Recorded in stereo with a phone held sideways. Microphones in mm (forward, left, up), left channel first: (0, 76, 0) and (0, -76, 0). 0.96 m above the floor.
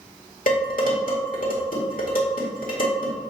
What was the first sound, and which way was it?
Dishes clattering, 70° left (ahead or behind).